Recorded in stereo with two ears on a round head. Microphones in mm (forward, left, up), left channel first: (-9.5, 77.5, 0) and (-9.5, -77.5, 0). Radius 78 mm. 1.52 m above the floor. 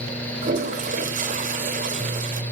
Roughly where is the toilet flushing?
Right.